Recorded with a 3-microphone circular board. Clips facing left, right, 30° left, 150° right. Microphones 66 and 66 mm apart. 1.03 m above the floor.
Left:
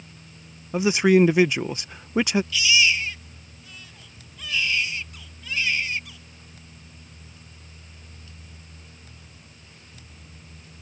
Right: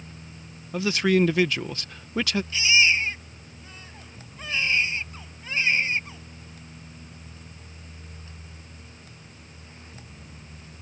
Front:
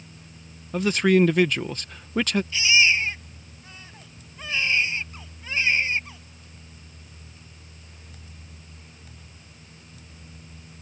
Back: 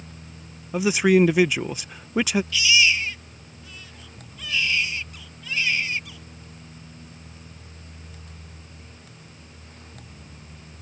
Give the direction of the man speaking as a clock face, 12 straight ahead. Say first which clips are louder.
Left 4 dB, back 1 dB; 7 o'clock.